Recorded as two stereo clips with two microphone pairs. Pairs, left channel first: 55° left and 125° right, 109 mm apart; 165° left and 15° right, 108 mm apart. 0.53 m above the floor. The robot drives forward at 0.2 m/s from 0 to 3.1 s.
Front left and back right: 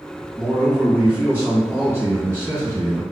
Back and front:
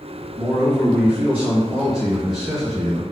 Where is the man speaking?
55° right, 1.3 m; by 3.0 s 115° right, 1.3 m.